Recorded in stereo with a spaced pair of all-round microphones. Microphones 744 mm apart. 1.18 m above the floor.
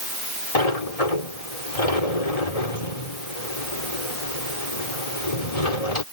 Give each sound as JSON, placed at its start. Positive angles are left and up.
{"t": 0.6, "sound": "a sliding door", "side_deg": 50}